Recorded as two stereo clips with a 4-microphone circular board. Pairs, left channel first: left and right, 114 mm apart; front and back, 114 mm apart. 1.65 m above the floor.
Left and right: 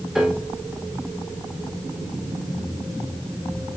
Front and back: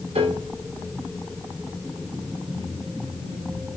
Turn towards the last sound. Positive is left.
turn(degrees=-175)